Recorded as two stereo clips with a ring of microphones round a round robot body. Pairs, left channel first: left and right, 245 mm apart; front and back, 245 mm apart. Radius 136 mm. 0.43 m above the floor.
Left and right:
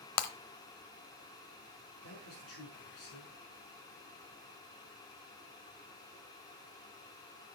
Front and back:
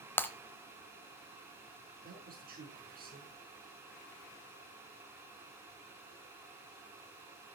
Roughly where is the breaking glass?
Left.